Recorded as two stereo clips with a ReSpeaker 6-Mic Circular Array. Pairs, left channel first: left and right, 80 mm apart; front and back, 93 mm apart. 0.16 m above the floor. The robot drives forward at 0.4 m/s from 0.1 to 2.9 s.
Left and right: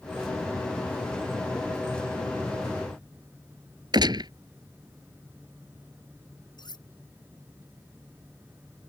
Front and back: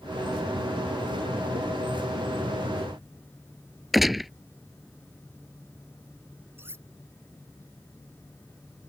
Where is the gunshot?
90° right.